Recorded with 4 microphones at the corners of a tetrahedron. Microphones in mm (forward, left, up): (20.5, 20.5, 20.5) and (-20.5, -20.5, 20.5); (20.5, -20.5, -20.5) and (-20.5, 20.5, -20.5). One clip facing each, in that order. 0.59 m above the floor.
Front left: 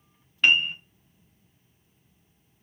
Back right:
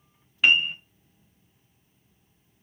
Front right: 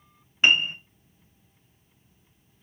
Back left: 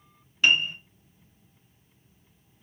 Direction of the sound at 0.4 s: 55° right.